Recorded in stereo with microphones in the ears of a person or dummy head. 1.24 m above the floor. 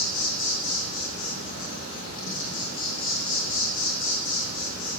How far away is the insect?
About 2.5 m.